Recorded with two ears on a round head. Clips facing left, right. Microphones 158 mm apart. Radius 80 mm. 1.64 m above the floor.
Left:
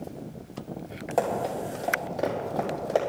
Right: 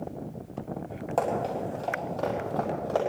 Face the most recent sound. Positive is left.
turn(degrees=25)  # may be behind; listen again after turning